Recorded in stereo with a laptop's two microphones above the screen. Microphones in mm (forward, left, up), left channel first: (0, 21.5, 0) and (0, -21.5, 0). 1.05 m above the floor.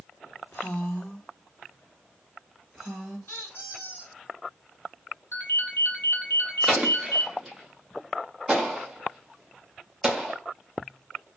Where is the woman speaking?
50° left (ahead or behind), 0.6 m; by 3.2 s centre (ahead or behind), 2 m.